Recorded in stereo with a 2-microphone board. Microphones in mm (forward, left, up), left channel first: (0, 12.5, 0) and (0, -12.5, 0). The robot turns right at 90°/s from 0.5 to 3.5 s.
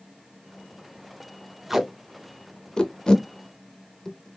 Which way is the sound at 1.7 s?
15° right (ahead or behind).